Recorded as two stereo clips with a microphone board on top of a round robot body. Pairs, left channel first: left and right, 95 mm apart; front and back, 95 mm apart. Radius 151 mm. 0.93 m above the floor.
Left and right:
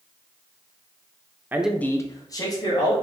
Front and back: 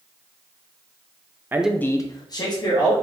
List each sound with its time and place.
1.5 s a man speaking: 140° right, 0.6 m; by 2.9 s 40° left, 1.7 m